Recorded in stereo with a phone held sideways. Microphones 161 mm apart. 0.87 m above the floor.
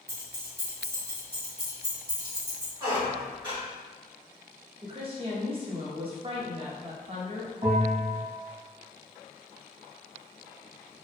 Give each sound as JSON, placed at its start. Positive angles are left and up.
{"t": 0.1, "sound": "keys jangling", "side_deg": -80, "distance_m": 1.5}
{"t": 2.8, "sound": "a squeak", "side_deg": -30, "distance_m": 2.0}
{"t": 4.8, "sound": "a woman speaking", "side_deg": -35, "distance_m": 0.9}
{"t": 7.6, "sound": "a bell", "side_deg": -35, "distance_m": 1.8}